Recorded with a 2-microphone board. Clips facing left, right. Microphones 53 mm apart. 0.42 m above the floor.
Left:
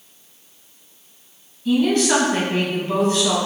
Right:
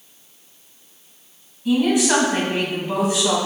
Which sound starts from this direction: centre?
A woman speaking, at 1.6 s.